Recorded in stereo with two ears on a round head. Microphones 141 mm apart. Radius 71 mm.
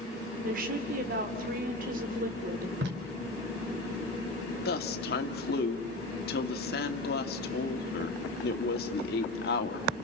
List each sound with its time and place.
0.4 s a woman speaking: 60° right (ahead or behind), 3.5 m
2.8 s tape being pulled: 80° right, 3.5 m
4.7 s a woman speaking: 65° left (ahead or behind), 2 m